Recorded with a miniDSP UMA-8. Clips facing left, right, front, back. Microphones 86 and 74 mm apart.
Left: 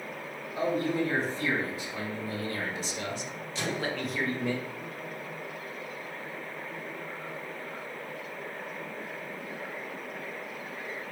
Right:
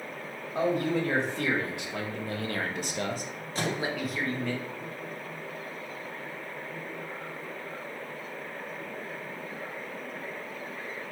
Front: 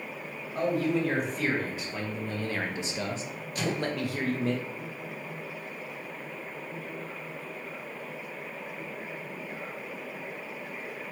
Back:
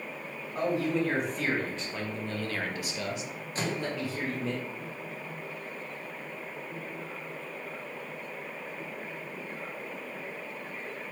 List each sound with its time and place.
0.6 s a man speaking: 95° right, 1.8 m; by 4.5 s 20° left, 0.7 m
3.5 s a microwave: 125° right, 0.8 m